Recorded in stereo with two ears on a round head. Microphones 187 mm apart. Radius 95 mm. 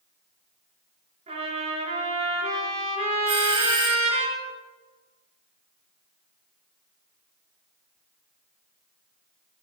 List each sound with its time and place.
1.3 s a trumpet: 30° right (ahead or behind), 6.5 m
3.3 s a doorbell: 25° right (ahead or behind), 3 m